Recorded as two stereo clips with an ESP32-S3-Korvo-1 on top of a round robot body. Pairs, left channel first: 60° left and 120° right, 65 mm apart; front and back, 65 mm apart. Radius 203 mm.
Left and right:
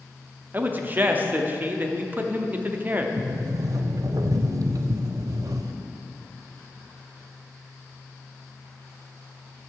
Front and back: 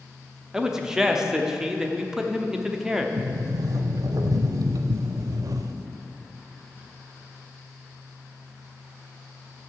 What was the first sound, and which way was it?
A man speaking, 105° right.